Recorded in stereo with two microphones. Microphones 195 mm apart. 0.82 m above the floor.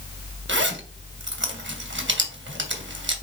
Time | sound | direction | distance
0.5 | a zipper | 75° right (ahead or behind) | 1.7 m